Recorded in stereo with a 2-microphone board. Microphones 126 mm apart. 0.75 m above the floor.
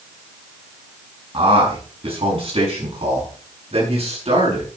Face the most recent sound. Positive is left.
turn(degrees=-50)  # may be behind; listen again after turning